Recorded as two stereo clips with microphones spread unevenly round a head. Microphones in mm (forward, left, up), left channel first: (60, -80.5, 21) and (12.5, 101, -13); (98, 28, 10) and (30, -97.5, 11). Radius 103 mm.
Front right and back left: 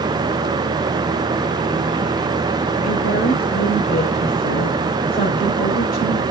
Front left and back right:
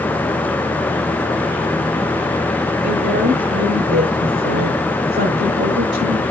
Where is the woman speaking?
125° right, 4.5 m.